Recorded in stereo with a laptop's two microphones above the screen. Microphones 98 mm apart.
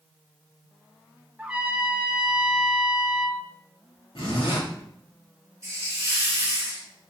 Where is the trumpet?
10° right (ahead or behind), 1.0 m.